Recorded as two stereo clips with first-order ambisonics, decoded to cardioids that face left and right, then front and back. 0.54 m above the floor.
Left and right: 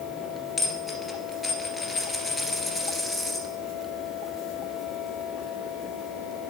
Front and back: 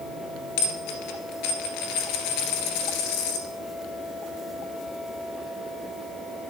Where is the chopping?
No chopping in this recording.